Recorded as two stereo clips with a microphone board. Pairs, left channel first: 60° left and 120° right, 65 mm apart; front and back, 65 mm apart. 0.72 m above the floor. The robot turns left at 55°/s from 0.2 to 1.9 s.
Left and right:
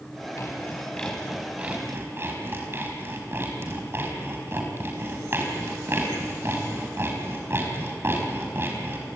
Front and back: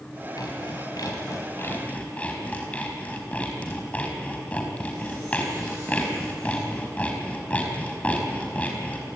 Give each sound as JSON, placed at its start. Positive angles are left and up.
{"t": 0.4, "sound": "sawing", "azimuth_deg": 15, "distance_m": 4.5}